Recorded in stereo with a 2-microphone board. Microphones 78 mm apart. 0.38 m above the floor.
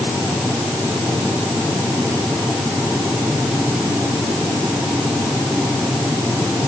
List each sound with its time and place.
Only background noise.